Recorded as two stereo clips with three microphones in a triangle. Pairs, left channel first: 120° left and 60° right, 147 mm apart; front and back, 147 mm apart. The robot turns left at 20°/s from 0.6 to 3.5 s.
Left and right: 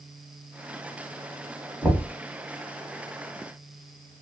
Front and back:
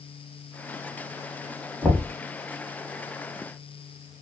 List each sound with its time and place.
1.8 s knocking: 115° right, 0.8 m; by 2.1 s 120° right, 0.8 m